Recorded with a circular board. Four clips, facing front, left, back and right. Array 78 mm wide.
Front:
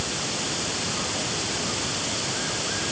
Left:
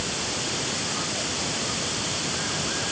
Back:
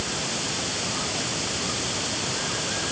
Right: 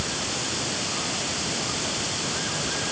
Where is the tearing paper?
I don't hear tearing paper.